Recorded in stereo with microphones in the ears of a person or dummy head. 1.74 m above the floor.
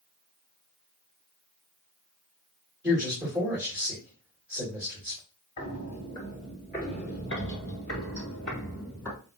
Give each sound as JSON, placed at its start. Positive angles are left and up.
{"t": 2.8, "sound": "a man speaking", "side_deg": -10, "distance_m": 2.5}
{"t": 5.6, "sound": "footsteps", "side_deg": 20, "distance_m": 1.8}